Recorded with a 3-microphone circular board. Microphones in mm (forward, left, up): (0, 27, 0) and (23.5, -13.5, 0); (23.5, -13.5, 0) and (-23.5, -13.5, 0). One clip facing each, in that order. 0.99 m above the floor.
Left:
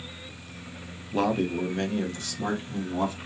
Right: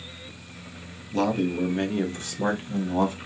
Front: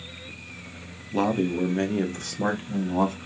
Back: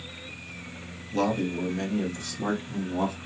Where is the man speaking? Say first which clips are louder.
Right 1 dB, front 2 dB; 60° left, 0.6 m; by 3.2 s 10° right, 1.4 m.